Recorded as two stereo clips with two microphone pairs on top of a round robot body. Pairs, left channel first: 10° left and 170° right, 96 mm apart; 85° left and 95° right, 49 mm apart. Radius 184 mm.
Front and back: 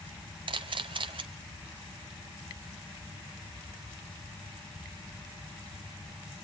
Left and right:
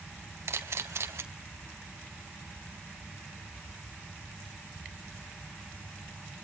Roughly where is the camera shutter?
Behind right.